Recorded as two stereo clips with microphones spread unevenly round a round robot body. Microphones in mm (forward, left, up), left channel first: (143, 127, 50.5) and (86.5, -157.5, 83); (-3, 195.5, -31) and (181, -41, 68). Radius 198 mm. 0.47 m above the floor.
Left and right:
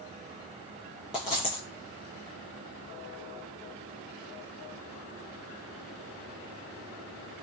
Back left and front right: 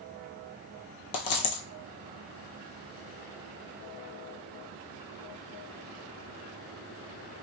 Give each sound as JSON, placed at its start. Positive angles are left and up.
{"t": 1.1, "sound": "a dropped coin", "azimuth_deg": 175, "distance_m": 0.7}